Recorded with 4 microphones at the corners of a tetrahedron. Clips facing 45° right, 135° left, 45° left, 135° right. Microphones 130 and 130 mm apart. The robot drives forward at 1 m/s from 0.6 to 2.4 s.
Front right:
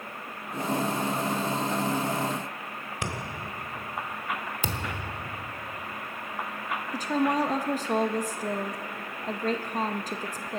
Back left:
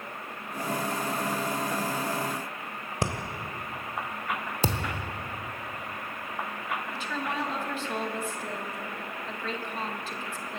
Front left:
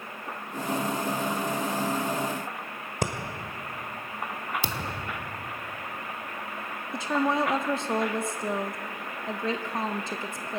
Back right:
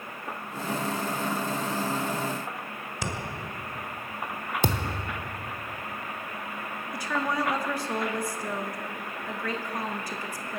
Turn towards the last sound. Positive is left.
turn(degrees=-15)